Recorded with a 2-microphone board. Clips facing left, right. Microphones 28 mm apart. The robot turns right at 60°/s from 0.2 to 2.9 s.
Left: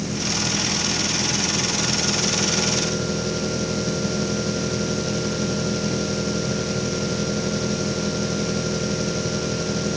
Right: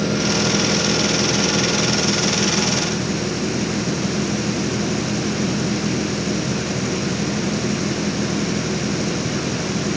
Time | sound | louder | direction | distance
0.0 | an engine running | right 6 dB | 130° right | ?